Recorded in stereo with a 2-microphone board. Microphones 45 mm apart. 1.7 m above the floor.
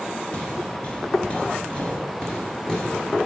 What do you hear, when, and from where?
0.3 s footsteps: 25° left (ahead or behind), 1.8 m; by 3.2 s 15° left (ahead or behind), 2.5 m